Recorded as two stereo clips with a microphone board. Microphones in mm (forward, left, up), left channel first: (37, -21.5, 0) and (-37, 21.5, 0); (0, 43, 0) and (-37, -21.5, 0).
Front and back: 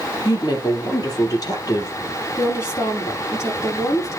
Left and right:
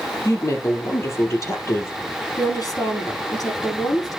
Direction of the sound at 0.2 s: 10° left.